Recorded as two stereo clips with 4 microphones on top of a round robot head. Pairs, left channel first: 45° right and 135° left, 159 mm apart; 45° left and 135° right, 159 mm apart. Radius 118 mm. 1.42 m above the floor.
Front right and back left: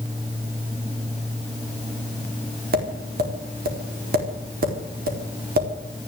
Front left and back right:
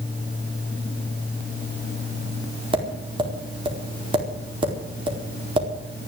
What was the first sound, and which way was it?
Tapping, 165° left.